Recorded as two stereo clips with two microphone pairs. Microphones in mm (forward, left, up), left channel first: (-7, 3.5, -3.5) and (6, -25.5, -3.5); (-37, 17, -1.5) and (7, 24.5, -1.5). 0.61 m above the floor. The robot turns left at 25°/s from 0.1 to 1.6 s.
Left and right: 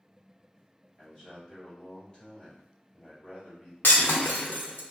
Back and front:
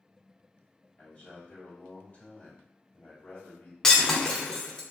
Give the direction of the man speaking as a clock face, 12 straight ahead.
6 o'clock.